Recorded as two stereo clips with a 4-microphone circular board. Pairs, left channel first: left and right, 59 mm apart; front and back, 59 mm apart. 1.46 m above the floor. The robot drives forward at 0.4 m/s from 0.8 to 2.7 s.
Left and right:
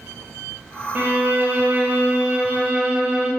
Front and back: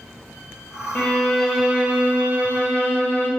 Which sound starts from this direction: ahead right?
A violin, at 0.9 s.